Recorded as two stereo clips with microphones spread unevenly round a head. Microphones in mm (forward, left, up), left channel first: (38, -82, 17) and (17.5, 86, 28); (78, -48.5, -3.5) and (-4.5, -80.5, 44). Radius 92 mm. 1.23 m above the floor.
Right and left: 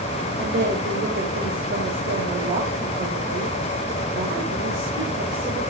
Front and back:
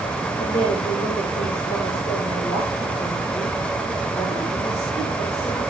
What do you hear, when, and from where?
0.4 s a woman speaking: 60° left, 5 m